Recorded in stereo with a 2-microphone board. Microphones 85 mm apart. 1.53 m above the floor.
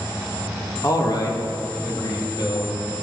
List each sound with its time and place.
0.8 s a man speaking: 50° left (ahead or behind), 2.5 m; by 2.8 s 60° left (ahead or behind), 3.5 m